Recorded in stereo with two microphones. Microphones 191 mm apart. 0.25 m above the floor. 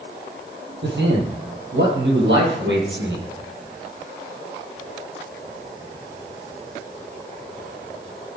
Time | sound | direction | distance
0.8 | a man speaking | 75° right (ahead or behind) | 8 m